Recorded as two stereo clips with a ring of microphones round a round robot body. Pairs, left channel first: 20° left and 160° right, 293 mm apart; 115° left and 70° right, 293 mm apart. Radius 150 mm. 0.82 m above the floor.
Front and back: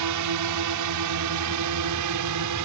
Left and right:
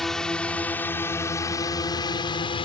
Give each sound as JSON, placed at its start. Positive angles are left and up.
{"t": 0.0, "sound": "a drone", "azimuth_deg": -160}